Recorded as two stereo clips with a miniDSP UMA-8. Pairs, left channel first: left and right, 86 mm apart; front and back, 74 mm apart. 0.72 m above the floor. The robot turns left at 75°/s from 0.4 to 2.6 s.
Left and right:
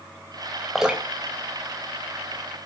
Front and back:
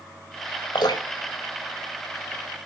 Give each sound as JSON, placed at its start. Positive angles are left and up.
{"t": 0.8, "sound": "dripping", "azimuth_deg": 0, "distance_m": 4.0}